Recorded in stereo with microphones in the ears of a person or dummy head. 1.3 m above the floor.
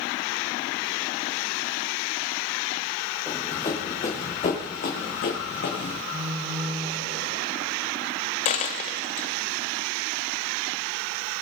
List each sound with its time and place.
3.3 s running footsteps: 25° left (ahead or behind), 3.5 m; by 6.0 s 65° left (ahead or behind), 5 m
6.1 s a phone buzzing: 15° right (ahead or behind), 1.6 m
8.4 s a dropped coin: 40° left (ahead or behind), 0.9 m